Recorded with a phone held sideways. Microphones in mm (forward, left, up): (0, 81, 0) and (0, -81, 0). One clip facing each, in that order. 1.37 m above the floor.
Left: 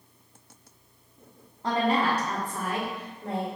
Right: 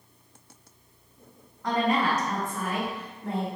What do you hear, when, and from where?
1.6 s a woman speaking: 35° left (ahead or behind), 0.8 m; by 3.5 s 40° left (ahead or behind), 2 m